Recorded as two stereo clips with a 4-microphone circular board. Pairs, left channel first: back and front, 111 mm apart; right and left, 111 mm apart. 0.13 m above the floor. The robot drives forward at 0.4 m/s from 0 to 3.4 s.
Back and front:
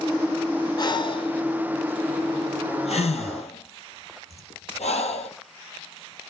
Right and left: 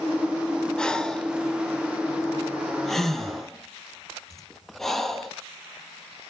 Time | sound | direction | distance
0.8 | breathing | 170° right | 0.6 m